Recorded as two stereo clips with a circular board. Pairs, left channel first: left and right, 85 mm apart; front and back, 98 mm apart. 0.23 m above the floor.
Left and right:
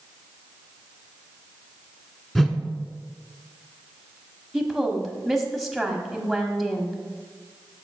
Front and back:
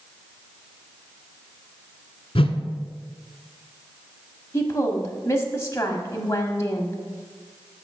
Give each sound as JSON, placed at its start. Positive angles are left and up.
{"t": 2.4, "sound": "a whoosh", "azimuth_deg": 5, "distance_m": 0.8}
{"t": 4.5, "sound": "a woman speaking", "azimuth_deg": 0, "distance_m": 1.1}